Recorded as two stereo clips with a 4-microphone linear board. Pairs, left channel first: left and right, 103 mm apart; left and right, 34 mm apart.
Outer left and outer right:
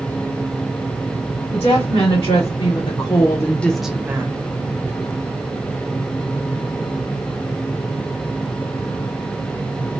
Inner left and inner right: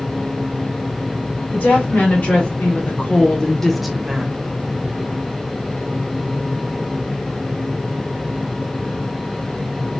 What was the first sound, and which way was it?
A woman speaking, 60° left (ahead or behind).